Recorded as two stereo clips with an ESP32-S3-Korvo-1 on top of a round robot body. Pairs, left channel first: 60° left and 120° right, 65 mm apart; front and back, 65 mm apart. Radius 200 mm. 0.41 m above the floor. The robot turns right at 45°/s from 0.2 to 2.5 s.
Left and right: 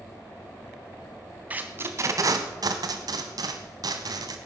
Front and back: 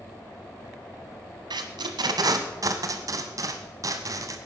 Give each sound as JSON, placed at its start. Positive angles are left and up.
{"t": 1.5, "sound": "tape being pulled", "azimuth_deg": 170, "distance_m": 0.9}